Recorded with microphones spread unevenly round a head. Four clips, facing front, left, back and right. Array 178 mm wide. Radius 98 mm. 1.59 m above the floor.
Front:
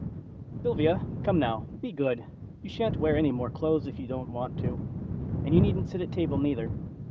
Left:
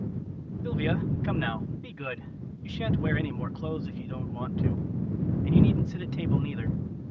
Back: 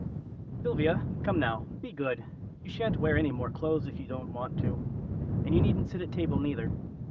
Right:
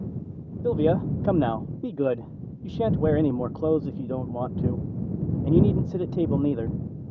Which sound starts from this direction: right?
A man speaking, at 0.6 s.